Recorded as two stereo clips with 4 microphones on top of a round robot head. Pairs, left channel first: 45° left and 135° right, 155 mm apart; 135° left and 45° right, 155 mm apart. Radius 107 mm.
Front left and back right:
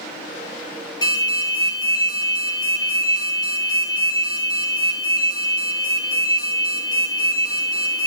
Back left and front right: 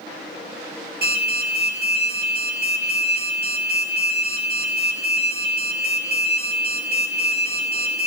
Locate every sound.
1.0 s an alarm: 20° right, 8 m